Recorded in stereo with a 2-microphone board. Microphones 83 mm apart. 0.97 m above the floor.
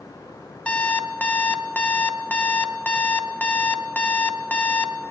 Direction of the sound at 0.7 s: 15° left (ahead or behind).